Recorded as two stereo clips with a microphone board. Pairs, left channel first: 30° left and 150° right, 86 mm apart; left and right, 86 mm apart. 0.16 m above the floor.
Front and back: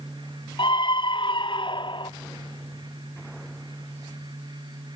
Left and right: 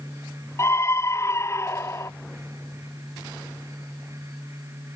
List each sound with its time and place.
0.6 s a scream: 35° left